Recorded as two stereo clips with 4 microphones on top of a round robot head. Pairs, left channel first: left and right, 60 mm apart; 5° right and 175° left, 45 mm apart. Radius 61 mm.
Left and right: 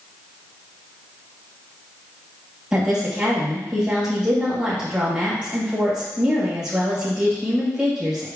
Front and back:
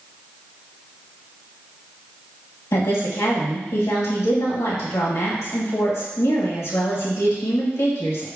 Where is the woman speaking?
15° right, 2.5 m.